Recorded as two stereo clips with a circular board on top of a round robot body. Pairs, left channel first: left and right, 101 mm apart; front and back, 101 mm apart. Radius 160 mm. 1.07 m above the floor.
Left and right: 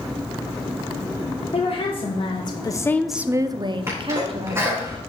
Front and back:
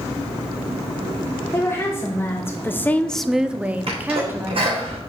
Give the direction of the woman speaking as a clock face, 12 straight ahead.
10 o'clock.